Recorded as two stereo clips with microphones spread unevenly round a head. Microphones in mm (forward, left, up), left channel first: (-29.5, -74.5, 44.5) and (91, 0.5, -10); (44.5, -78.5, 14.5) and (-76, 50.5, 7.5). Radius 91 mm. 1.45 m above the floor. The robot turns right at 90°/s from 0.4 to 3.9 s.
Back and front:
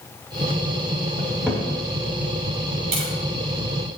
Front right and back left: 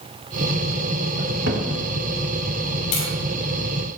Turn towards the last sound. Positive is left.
turn(degrees=95)